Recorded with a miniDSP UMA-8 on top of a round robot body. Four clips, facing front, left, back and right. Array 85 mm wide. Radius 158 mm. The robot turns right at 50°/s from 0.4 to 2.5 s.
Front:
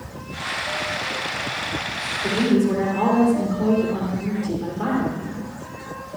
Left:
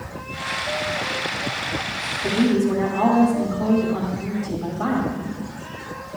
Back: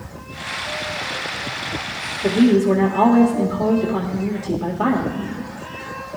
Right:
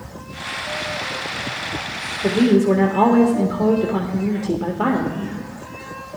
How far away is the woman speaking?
About 1.5 m.